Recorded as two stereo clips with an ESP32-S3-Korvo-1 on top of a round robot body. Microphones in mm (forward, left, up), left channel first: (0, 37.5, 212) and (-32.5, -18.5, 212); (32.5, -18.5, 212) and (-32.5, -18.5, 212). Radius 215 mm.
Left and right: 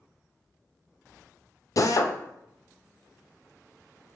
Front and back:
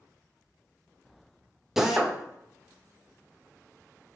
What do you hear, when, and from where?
1.8 s a drill: 95° left, 0.6 m